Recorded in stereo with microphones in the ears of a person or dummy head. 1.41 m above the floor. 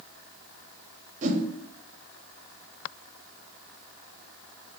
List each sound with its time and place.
1.2 s a whoosh: 45° right (ahead or behind), 0.6 m